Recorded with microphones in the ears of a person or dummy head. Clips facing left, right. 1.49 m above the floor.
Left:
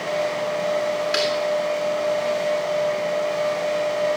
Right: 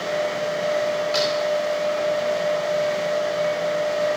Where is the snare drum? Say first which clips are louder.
Right 1 dB; 30° left (ahead or behind), 3 m.